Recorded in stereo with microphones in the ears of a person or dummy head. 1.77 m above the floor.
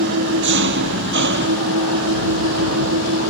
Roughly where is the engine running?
Right.